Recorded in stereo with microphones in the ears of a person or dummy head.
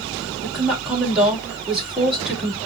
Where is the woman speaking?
5° right (ahead or behind), 2.5 m.